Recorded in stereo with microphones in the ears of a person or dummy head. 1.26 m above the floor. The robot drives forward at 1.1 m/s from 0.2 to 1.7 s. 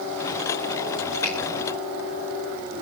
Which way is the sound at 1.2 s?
35° right (ahead or behind).